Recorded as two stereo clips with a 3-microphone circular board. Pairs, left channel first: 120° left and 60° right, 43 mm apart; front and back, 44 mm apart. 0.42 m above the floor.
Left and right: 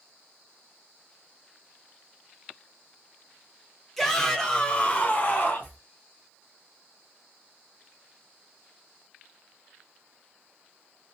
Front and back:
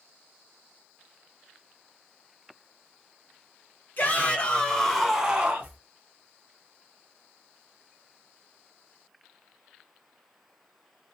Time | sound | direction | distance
4.0 | a shout | 35° left | 1.4 m